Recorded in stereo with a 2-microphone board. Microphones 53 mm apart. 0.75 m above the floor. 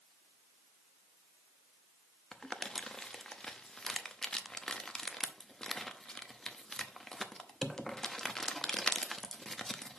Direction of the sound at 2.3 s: 10° left (ahead or behind).